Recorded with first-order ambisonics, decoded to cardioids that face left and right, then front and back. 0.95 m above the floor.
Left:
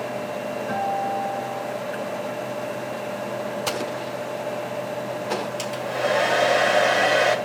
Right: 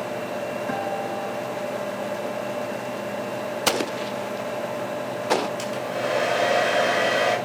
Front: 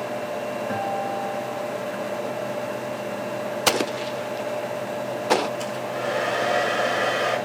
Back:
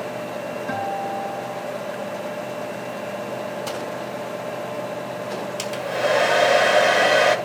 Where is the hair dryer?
170° left, 2 m.